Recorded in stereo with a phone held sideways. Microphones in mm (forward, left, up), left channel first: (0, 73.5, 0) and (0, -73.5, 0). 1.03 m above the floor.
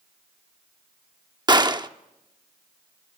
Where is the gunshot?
30° right (ahead or behind), 0.8 m.